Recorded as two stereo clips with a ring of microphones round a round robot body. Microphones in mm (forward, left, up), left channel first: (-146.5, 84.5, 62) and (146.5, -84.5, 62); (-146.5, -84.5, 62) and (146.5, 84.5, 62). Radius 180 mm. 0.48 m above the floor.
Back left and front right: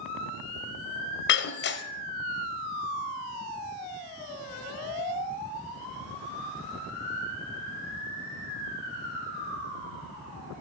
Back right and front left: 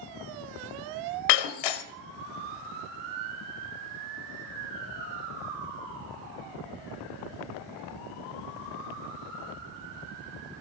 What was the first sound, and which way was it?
Breaking glass, 150° right.